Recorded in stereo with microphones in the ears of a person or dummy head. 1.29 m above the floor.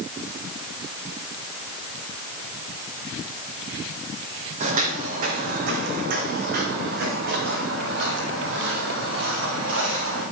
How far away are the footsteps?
About 3 m.